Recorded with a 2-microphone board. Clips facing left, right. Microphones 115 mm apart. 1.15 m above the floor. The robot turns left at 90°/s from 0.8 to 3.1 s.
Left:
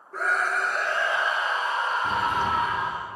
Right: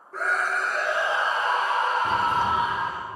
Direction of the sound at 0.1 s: Straight ahead.